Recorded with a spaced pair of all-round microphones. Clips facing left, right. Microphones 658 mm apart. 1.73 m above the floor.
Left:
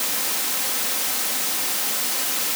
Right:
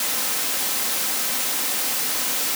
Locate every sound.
Only background noise.